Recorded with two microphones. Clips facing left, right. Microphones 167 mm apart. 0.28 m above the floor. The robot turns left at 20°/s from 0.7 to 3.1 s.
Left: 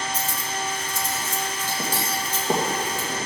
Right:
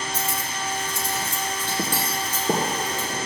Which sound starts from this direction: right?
Cutlery clinking, at 0.1 s.